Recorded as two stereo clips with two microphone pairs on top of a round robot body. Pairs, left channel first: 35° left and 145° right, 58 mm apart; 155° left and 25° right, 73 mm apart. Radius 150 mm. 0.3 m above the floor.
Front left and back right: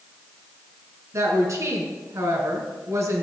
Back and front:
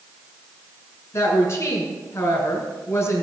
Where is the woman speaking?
155° right, 3 m.